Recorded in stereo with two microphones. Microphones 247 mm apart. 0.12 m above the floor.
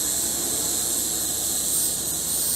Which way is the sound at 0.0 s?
Centre (ahead or behind).